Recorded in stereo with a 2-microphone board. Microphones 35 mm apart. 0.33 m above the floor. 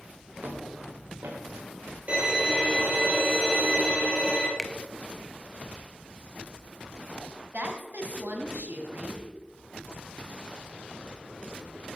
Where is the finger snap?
5° left (ahead or behind), 0.6 m.